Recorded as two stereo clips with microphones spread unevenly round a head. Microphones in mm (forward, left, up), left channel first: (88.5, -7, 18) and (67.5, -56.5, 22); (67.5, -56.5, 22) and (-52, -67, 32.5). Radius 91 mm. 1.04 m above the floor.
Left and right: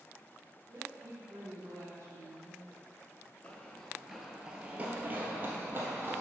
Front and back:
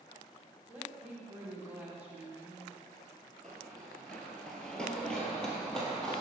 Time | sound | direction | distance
0.7 | a woman speaking | 95° right | 2 m
3.4 | running footsteps | 100° left | 1.0 m